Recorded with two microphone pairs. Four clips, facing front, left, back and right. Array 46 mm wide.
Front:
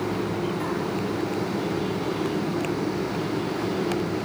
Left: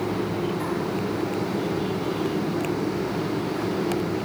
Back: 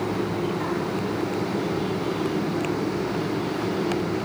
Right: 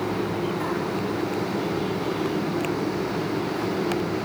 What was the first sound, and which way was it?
Only background noise.